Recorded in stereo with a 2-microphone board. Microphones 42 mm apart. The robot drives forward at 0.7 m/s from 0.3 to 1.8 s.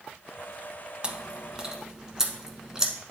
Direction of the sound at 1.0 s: 25° right (ahead or behind).